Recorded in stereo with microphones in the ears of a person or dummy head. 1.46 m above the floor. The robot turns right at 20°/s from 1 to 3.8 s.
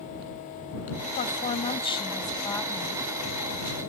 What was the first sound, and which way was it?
A woman speaking, 140° left.